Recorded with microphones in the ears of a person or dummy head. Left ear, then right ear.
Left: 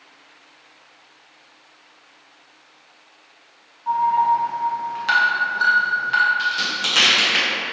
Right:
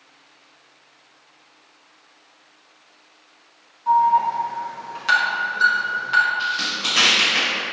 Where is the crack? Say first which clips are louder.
Left 1 dB; 60° left (ahead or behind), 1.7 m.